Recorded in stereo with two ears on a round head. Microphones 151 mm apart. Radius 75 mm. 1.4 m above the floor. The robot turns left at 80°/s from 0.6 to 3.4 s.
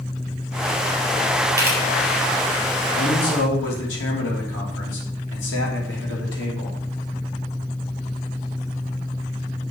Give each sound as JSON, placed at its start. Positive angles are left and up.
{"t": 1.6, "sound": "a camera shutter", "side_deg": -25, "distance_m": 3.0}
{"t": 2.9, "sound": "a man speaking", "azimuth_deg": 135, "distance_m": 3.0}